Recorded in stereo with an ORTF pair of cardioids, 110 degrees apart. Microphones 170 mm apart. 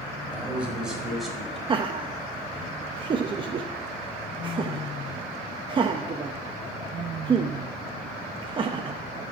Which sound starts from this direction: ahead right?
Laughter, at 1.7 s.